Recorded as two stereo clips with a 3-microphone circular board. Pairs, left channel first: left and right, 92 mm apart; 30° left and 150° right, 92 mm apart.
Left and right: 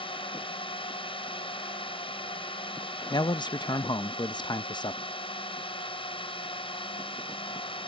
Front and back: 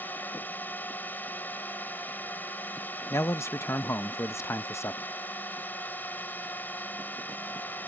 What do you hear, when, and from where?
0.0 s a drone: 100° left
3.1 s a man speaking: 80° left